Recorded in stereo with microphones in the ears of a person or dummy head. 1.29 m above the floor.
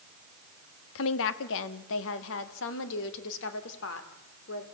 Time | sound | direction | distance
0.9 | a woman speaking | 65° left (ahead or behind) | 1.6 m